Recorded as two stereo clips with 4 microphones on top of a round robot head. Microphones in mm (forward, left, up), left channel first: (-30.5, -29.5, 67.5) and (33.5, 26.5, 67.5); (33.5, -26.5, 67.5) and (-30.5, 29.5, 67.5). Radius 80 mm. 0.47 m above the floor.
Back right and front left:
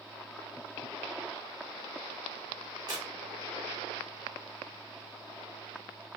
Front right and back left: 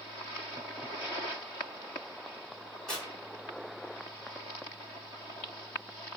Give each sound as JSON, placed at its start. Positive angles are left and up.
{"t": 2.9, "sound": "tearing paper", "azimuth_deg": 40, "distance_m": 1.9}